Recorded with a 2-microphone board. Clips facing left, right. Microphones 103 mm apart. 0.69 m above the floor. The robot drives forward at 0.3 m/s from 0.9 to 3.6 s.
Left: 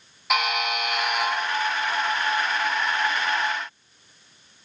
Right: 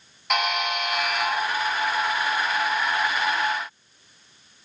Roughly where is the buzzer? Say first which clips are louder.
Even; centre.